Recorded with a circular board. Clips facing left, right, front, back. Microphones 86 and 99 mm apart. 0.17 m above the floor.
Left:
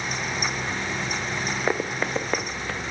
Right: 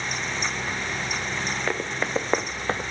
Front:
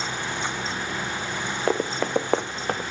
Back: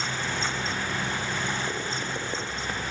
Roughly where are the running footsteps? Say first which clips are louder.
Left 2 dB, front 8 dB; ahead.